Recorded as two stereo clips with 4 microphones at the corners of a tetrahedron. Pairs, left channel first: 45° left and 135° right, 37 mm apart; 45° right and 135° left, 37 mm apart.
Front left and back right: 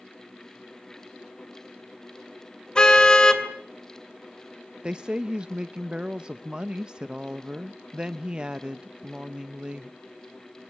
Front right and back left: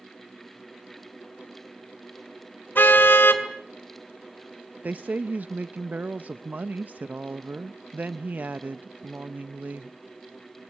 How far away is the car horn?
About 2.5 m.